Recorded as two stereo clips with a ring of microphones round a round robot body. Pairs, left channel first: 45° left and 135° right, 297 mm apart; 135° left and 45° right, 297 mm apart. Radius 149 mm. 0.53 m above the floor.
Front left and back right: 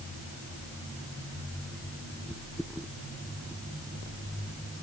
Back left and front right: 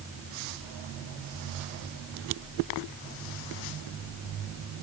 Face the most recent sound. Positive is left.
No sound to turn to.